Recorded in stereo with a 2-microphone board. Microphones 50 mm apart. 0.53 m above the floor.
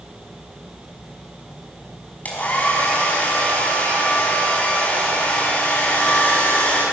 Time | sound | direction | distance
2.2 | a hair dryer | 35° left (ahead or behind) | 5 m